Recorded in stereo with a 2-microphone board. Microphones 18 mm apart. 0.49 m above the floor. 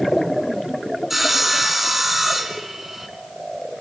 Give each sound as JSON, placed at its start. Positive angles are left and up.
{"t": 1.1, "sound": "sawing", "side_deg": -15, "distance_m": 3.0}